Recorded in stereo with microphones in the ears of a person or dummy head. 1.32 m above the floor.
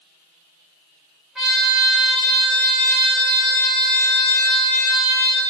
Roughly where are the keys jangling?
I don't hear keys jangling.